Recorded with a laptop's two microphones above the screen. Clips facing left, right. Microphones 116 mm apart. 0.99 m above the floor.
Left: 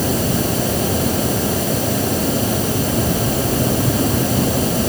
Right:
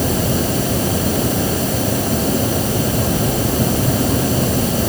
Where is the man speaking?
No man speaking in this recording.